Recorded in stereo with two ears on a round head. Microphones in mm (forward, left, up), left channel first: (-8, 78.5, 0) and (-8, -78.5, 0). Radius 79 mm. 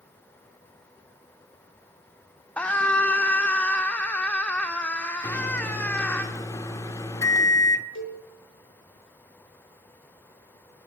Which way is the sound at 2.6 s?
10° left (ahead or behind).